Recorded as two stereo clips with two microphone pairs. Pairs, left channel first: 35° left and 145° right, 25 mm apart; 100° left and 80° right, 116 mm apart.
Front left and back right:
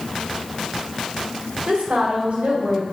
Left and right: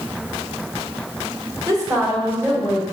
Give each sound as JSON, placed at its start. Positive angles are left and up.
{"t": 1.7, "sound": "a woman speaking", "azimuth_deg": -135, "distance_m": 1.8}